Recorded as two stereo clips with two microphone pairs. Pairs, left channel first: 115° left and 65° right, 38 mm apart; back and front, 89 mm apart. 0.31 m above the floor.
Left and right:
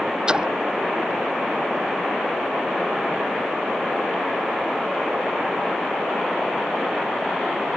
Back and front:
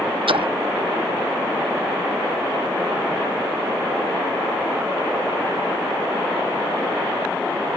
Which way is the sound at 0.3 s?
Straight ahead.